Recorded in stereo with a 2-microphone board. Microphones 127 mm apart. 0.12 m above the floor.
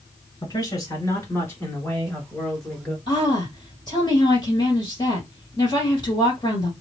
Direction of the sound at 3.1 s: 35° left (ahead or behind).